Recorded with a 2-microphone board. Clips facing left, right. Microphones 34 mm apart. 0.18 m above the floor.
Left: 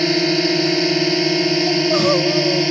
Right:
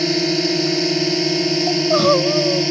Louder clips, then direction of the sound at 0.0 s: Left 2 dB; 15° left (ahead or behind).